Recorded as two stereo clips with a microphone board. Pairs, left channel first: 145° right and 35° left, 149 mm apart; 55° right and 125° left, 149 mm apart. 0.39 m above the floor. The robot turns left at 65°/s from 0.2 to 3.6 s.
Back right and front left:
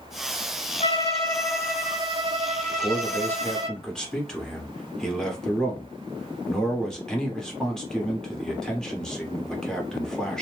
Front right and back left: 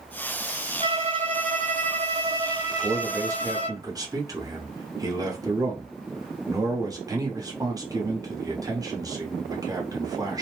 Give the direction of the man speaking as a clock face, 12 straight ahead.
6 o'clock.